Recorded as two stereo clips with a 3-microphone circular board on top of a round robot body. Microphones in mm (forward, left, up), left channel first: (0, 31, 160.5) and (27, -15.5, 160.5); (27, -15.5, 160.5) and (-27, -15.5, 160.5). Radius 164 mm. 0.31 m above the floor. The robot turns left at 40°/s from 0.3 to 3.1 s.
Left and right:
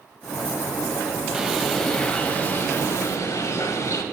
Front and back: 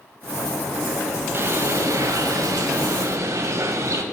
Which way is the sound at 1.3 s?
135° right.